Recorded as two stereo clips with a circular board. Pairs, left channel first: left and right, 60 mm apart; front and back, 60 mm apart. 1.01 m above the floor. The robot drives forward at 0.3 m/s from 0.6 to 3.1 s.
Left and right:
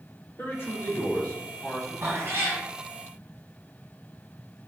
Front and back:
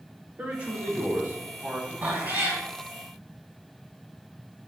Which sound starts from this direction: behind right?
A cat meowing, at 2.0 s.